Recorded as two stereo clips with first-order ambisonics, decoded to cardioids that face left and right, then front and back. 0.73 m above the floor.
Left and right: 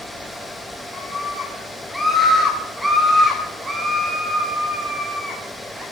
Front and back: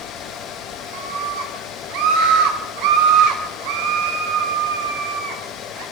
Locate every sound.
0.9 s a scream: 175° left, 7 m; by 5.8 s 160° right, 12 m